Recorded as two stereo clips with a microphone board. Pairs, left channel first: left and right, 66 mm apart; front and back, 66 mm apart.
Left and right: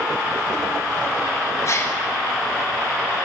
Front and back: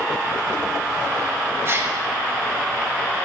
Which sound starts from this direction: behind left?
A gasp, at 1.6 s.